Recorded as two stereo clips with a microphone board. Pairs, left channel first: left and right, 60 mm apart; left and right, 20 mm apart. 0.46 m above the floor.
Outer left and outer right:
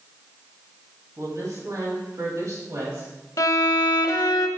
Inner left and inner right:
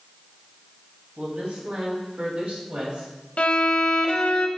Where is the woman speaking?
70° right (ahead or behind), 3 m; by 3.1 s 55° right (ahead or behind), 2.5 m.